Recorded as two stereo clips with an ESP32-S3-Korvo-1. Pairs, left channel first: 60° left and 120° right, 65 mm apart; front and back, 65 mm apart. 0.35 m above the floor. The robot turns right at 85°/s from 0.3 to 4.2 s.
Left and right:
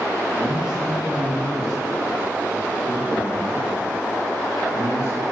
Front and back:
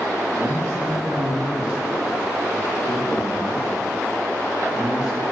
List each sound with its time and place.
0.4 s a man speaking: 135° left, 3.5 m; by 5.2 s 100° left, 3.5 m